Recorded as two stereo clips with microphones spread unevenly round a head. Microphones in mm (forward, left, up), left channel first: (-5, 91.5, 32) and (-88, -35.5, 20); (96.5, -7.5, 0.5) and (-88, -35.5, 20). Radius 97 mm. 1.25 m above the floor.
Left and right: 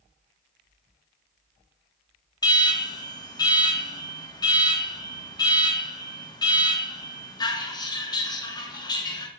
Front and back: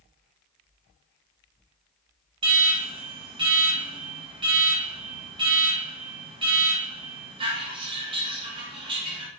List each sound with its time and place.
2.4 s an alarm: 120° left, 1.5 m